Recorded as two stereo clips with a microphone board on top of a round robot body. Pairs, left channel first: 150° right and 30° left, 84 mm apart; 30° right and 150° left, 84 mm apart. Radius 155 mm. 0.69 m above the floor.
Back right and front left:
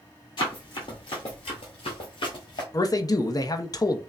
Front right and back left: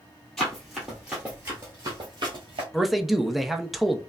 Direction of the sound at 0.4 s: 115° right.